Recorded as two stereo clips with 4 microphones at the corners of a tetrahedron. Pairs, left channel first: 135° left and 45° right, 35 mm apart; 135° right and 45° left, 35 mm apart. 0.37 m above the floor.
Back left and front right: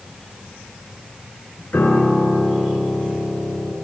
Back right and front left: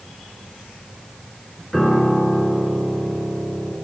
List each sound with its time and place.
1.7 s a piano: 150° left, 3 m